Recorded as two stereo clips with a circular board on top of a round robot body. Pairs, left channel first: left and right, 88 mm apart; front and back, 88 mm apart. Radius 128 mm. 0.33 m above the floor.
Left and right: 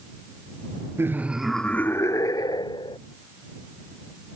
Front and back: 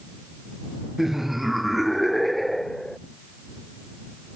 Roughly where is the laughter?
Right.